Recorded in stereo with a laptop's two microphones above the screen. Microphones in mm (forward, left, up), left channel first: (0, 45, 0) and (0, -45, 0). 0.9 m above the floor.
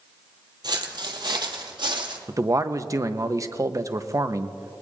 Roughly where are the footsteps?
Right.